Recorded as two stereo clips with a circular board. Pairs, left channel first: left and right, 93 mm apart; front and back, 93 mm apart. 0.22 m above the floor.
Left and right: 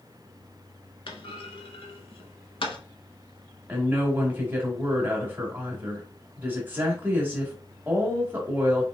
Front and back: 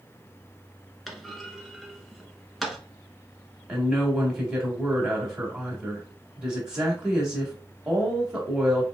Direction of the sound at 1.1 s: 90° left.